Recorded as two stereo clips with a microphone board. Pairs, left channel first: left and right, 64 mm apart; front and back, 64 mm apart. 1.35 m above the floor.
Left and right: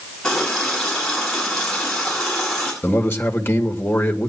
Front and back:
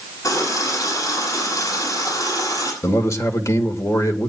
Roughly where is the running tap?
Ahead.